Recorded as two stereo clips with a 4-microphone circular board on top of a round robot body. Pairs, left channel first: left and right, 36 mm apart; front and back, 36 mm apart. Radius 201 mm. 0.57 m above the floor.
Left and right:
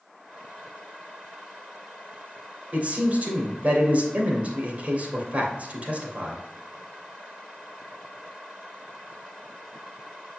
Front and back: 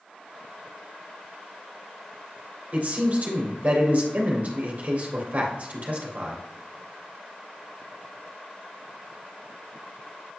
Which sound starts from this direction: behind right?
A man speaking, at 2.7 s.